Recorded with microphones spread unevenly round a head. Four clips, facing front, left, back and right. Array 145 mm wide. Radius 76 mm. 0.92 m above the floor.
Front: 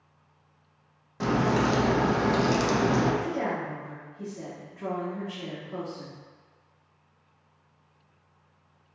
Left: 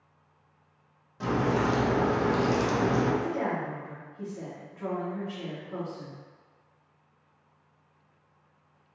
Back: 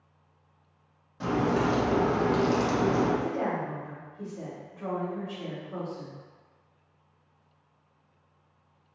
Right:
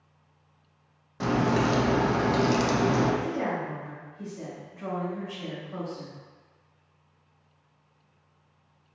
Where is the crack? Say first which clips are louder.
Right 2 dB, front 1 dB; 40° right, 0.8 m.